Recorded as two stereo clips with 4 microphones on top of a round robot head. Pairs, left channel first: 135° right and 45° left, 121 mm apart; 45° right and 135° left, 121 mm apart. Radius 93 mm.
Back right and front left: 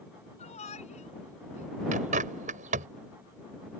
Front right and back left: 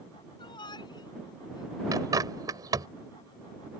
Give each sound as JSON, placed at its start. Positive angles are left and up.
{"t": 0.4, "sound": "a shout", "azimuth_deg": -100}
{"t": 1.9, "sound": "a bird", "azimuth_deg": 75}